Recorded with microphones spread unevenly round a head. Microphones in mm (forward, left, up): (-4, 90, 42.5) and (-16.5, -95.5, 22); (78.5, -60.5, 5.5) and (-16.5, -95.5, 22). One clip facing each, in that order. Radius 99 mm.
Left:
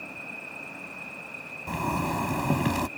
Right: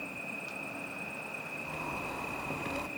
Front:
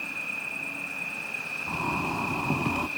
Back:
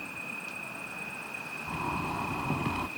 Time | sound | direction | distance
0.0 | an insect | 10° right | ?
1.7 | a zipper | 95° left | ?